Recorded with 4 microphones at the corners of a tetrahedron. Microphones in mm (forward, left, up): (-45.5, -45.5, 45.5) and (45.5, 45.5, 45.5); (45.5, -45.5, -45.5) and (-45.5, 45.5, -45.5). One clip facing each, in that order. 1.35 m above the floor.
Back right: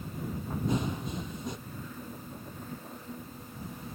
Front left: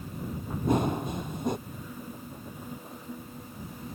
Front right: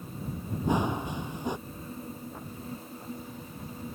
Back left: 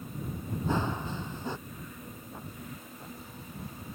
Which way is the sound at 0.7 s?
25° left.